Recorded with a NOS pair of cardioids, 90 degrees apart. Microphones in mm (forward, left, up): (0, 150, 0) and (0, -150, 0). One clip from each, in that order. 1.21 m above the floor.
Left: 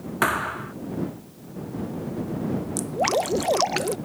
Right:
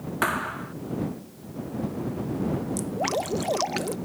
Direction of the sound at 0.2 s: 20° left.